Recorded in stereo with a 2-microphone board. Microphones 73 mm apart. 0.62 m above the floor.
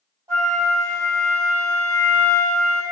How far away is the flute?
About 1.8 m.